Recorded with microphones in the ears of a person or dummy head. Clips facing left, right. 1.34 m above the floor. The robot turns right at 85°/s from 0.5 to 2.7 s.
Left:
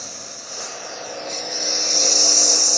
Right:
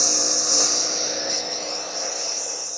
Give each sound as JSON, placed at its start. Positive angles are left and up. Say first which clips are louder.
{"t": 0.0, "sound": "a lawn mower", "louder": "right 11 dB", "azimuth_deg": -80}